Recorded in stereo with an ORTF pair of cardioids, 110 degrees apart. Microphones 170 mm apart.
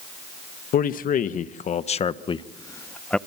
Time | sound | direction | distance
0.7 | a man speaking | 60° left | 1.6 m